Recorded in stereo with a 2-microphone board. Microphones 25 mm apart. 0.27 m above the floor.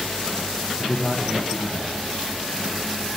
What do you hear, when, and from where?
0.8 s a man speaking: 40° left (ahead or behind), 2 m